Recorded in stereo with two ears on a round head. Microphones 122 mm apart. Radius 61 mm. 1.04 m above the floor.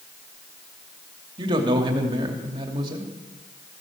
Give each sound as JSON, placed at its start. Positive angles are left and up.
{"t": 1.4, "sound": "a man speaking", "side_deg": -35, "distance_m": 2.5}